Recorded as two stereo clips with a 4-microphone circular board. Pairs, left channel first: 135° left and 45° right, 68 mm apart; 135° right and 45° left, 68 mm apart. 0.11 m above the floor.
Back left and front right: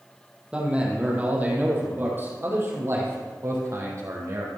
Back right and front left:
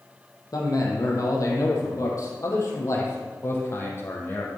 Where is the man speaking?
120° right, 3.5 m; by 4.5 s 80° right, 3.5 m.